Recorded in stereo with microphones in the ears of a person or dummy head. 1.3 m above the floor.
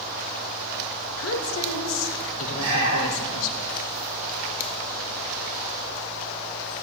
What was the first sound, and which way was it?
A woman speaking, 70° left (ahead or behind).